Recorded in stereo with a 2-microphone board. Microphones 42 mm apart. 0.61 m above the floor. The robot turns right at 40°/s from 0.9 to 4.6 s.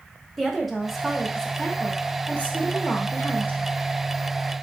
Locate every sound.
0.4 s a woman speaking: 5° right, 0.8 m; by 3.7 s 110° left, 0.8 m